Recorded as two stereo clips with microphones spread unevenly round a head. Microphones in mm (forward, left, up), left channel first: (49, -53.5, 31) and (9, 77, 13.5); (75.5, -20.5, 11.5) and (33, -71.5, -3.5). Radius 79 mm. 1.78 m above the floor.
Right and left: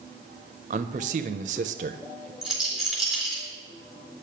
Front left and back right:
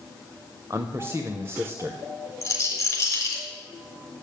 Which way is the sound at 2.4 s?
15° left.